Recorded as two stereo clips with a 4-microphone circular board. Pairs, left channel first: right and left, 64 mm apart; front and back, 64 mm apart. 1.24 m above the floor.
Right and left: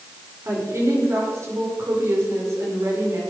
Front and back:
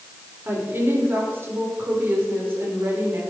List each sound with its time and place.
0.5 s a woman speaking: 125° left, 5 m